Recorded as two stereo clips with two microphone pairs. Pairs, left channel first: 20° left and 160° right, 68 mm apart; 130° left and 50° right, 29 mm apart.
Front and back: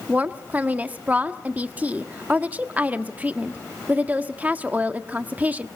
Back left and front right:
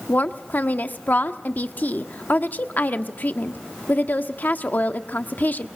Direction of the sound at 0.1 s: 130° left.